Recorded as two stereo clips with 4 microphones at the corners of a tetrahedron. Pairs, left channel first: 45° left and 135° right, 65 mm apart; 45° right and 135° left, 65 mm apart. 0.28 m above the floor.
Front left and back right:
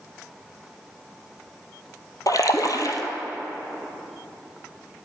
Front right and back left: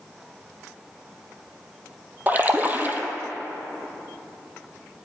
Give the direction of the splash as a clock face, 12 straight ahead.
10 o'clock.